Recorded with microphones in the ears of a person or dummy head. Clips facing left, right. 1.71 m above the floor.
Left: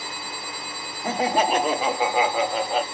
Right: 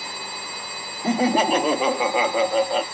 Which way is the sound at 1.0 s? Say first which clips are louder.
Right 3 dB; 75° right (ahead or behind).